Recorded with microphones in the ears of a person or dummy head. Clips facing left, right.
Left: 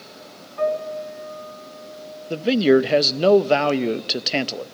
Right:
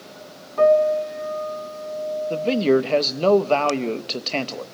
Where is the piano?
70° right (ahead or behind), 3 m.